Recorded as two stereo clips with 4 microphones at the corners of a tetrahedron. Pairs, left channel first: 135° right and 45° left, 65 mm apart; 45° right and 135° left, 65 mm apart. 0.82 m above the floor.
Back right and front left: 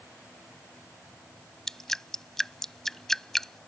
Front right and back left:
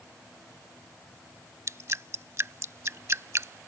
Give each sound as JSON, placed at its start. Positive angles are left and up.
{"t": 1.7, "sound": "dripping", "azimuth_deg": 145}